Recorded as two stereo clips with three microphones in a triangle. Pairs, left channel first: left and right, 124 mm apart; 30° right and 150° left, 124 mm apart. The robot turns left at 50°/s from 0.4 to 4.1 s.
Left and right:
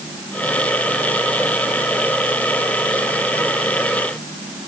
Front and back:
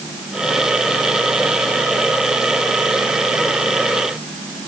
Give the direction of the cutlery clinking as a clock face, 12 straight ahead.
I don't hear cutlery clinking.